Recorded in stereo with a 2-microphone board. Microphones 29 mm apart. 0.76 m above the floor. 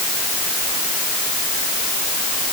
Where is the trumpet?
I don't hear a trumpet.